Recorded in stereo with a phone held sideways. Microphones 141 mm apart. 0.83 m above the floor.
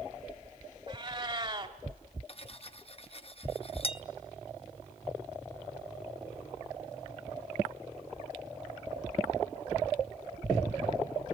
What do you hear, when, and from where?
0.9 s a cat meowing: 40° right (ahead or behind), 1.5 m
2.3 s cutlery clinking: 45° left (ahead or behind), 0.6 m